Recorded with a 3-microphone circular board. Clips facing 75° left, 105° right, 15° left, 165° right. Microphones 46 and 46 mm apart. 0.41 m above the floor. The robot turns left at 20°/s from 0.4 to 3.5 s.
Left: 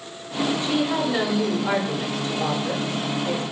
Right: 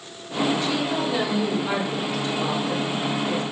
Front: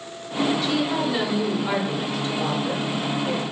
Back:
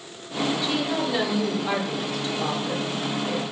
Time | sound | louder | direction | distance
0.6 | a woman speaking | left 2 dB, front 2 dB | 110° left | 0.8 m